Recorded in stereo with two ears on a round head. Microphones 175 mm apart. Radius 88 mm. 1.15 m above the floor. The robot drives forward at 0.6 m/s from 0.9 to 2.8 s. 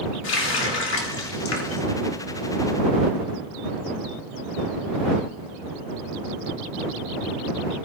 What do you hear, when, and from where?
0.2 s a running tap: 65° left (ahead or behind), 2.0 m; by 1.8 s 80° left, 1.8 m